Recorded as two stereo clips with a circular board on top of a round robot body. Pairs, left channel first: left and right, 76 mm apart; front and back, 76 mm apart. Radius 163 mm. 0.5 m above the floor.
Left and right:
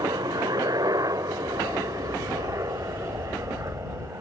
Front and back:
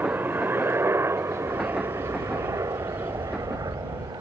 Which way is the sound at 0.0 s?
115° right.